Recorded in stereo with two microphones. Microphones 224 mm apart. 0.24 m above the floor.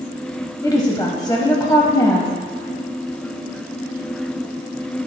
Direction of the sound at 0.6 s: 20° left (ahead or behind).